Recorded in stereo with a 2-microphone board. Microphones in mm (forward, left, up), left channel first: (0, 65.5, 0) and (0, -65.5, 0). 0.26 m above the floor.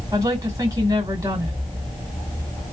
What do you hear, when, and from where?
0.1 s a woman speaking: 30° right (ahead or behind), 2 m